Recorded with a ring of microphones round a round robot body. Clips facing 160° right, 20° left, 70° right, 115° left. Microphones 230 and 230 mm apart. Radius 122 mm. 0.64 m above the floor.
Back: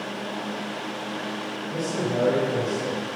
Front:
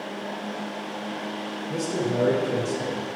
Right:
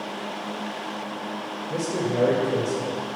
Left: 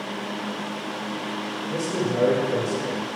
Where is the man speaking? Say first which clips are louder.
Front 1 dB, even; 20° left, 2.5 m.